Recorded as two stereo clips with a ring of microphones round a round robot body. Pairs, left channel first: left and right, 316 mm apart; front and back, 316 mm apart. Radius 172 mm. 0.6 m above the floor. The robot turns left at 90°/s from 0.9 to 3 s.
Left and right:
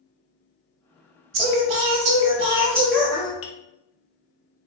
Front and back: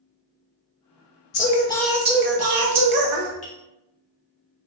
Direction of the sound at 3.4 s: 60° left.